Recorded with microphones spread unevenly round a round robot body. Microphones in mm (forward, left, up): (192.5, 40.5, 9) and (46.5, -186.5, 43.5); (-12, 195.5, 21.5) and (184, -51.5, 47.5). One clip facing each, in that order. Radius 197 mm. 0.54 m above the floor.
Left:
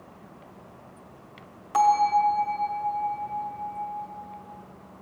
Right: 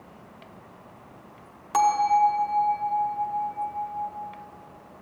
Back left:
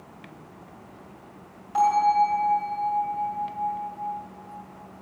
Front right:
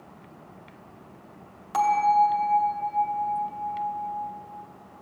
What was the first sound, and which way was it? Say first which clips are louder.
A bell: even, back left 1 dB; 85° right.